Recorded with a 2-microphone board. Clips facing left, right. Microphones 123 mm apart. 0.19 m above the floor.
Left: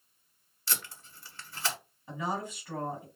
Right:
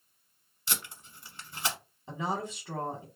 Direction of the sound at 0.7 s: 20° right (ahead or behind).